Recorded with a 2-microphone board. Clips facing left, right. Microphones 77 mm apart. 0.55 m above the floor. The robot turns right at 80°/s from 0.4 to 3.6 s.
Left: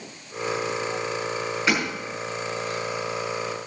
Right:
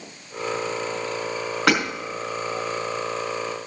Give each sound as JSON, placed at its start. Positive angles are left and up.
{"t": 1.7, "sound": "hammering", "side_deg": -60, "distance_m": 5.0}